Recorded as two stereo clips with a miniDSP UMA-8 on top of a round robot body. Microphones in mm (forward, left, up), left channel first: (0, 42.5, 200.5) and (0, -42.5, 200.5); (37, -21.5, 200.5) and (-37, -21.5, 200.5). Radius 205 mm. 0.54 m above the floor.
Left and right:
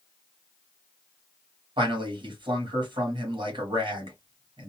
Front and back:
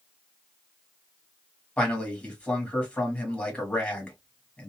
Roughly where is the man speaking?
Right.